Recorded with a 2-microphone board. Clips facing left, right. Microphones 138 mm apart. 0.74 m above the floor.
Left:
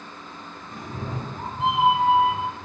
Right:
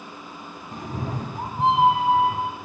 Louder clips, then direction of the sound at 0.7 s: Right 3 dB; 45° right (ahead or behind).